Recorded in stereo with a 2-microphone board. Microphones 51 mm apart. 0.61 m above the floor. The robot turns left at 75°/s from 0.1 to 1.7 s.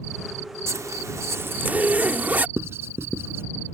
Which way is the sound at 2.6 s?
55° right (ahead or behind).